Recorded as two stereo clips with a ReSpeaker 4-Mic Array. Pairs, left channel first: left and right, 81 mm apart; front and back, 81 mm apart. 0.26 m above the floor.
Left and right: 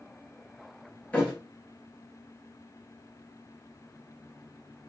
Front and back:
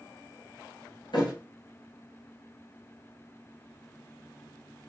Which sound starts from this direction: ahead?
A thud, at 1.1 s.